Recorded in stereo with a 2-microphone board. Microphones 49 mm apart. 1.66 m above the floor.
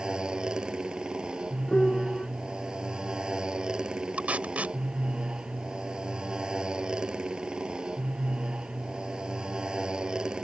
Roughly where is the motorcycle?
Centre.